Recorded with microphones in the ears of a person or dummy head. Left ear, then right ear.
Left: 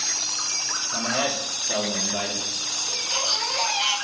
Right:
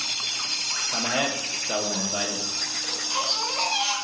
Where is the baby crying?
20° right (ahead or behind), 4 m.